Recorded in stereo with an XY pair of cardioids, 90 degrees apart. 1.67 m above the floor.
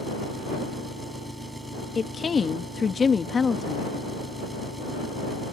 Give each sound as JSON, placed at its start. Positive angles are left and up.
{"t": 0.0, "sound": "an engine running", "azimuth_deg": -10}
{"t": 1.9, "sound": "a woman speaking", "azimuth_deg": 40}